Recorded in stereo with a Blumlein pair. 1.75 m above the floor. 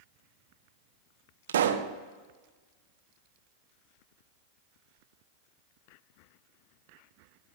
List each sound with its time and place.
1.5 s a pop: 60° right, 0.9 m